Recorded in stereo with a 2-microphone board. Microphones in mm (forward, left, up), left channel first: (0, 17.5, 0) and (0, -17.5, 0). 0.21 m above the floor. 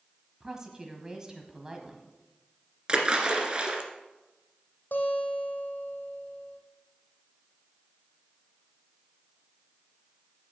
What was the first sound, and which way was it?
A woman speaking, 20° right (ahead or behind).